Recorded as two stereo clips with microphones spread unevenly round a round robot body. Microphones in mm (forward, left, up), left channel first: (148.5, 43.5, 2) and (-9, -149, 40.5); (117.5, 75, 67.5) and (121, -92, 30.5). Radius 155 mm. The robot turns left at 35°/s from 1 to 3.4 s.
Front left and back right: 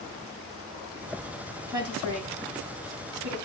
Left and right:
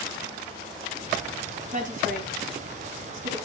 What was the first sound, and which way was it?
A woman speaking, 50° right.